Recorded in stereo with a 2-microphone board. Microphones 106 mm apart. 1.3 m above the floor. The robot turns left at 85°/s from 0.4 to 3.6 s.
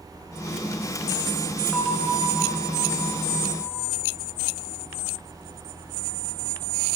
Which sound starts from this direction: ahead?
A bell, at 1.7 s.